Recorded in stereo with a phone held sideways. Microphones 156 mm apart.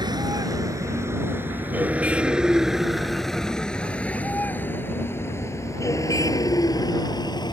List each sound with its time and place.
0.0 s a vehicle: 25° right (ahead or behind); by 7.5 s 25° left (ahead or behind)